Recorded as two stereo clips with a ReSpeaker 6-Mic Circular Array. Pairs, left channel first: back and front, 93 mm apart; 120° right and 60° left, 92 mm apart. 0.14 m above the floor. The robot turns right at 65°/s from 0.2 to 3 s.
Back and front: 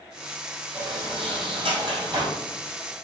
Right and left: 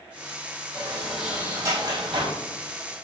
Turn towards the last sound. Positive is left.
turn(degrees=95)